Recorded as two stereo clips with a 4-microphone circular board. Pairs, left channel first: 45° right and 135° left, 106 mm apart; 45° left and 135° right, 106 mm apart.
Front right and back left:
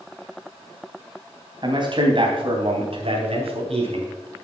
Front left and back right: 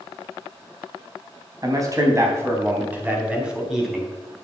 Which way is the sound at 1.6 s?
175° left.